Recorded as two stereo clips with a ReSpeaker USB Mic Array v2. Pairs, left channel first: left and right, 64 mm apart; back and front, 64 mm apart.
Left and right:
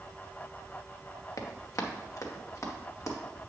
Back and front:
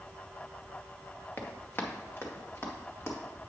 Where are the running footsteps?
120° left, 1.6 m; by 3.2 s 130° left, 2.5 m.